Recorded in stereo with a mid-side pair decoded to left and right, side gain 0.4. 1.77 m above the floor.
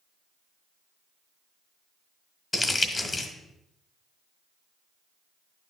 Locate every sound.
2.5 s crumpling: 30° left, 1.4 m